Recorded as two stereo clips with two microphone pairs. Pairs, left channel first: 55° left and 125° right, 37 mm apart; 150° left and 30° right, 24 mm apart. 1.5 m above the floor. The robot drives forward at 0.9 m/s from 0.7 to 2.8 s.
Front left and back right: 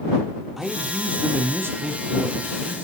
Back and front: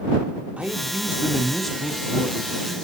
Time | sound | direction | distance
0.6 | a man speaking | 45° right | 0.7 m